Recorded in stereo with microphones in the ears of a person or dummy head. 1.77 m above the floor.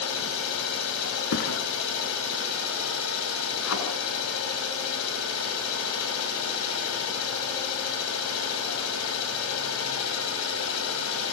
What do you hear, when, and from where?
0.0 s an engine running: 80° left, 8.5 m
1.3 s a thud: 55° left (ahead or behind), 4 m
3.6 s a thud: 80° left, 8.5 m